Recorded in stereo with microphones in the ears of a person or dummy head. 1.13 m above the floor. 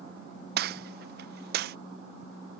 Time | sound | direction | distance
0.6 | a gunshot | 50° right (ahead or behind) | ?